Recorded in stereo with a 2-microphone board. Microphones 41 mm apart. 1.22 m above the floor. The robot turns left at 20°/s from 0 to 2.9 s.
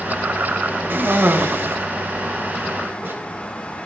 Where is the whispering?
No whispering in this recording.